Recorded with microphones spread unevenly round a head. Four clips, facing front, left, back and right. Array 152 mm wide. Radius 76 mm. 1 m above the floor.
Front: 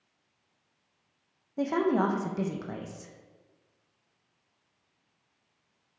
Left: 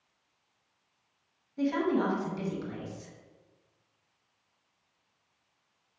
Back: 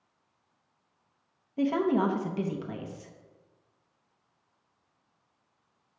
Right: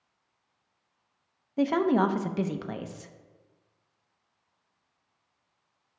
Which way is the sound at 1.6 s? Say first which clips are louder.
Right 4 dB, even; 100° right.